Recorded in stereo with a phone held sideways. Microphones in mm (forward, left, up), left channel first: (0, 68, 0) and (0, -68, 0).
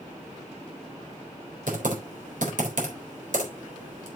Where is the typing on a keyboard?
75° right (ahead or behind), 3.5 m.